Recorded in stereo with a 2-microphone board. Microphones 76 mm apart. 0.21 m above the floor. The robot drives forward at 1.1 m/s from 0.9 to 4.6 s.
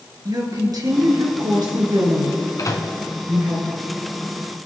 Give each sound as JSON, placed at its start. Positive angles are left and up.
{"t": 0.2, "sound": "a woman speaking", "side_deg": -60, "distance_m": 3.5}
{"t": 2.6, "sound": "a microwave", "side_deg": 50, "distance_m": 1.8}